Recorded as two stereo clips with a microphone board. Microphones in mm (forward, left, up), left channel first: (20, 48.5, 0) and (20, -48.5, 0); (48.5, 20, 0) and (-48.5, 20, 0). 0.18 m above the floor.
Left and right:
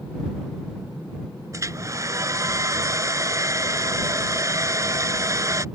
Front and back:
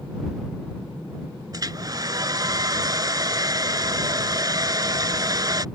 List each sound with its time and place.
1.5 s a hair dryer: 140° right